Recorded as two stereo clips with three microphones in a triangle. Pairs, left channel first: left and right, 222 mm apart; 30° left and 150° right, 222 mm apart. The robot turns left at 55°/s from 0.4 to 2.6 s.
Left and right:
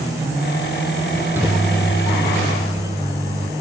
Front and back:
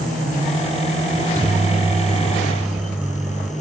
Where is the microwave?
155° right, 1.2 m; by 3.5 s 125° left, 1.2 m.